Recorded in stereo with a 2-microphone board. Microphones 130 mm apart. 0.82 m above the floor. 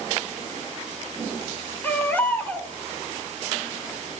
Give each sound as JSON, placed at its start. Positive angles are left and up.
{"t": 1.8, "sound": "a baby crying", "side_deg": 15, "distance_m": 2.0}